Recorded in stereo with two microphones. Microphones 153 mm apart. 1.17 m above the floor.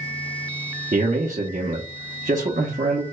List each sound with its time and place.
0.9 s a man speaking: 60° right (ahead or behind), 0.8 m